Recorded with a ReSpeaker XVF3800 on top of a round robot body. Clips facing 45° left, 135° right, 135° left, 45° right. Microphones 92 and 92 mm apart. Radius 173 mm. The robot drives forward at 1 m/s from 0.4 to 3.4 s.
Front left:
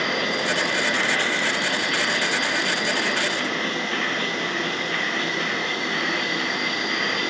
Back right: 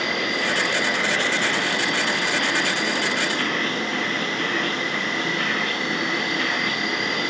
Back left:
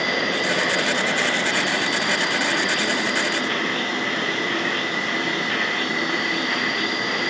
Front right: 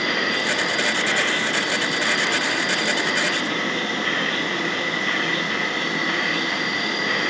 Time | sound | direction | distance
0.0 | an insect | 100° left | 0.9 m